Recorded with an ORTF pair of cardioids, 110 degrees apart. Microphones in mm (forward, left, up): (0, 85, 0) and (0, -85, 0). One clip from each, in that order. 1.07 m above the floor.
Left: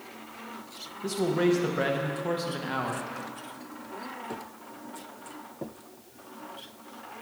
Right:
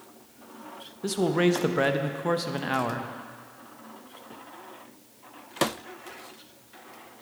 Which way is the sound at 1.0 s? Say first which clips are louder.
Right 2 dB; 30° right.